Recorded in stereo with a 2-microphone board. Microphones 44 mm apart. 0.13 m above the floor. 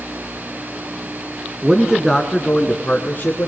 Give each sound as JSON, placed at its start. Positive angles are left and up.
{"t": 1.6, "sound": "a man speaking", "side_deg": -15, "distance_m": 1.9}